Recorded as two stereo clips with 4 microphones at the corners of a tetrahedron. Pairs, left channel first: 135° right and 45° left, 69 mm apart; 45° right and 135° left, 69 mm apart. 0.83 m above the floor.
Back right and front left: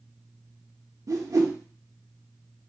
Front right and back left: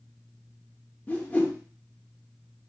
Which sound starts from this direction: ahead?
A whoosh, at 1.1 s.